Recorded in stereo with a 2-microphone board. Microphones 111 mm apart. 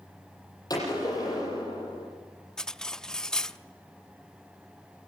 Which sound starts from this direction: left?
A gunshot, at 0.7 s.